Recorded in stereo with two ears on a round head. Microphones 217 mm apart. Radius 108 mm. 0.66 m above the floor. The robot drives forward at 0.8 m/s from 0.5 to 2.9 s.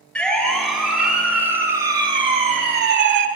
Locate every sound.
0.1 s a siren: 5° left (ahead or behind), 5 m; by 3.3 s 55° right (ahead or behind), 2.0 m